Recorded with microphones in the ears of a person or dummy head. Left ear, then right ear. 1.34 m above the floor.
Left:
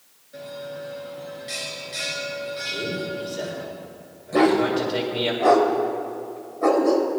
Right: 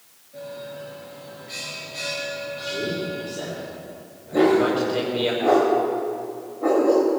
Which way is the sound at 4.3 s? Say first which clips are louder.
Right 1 dB; 70° left (ahead or behind).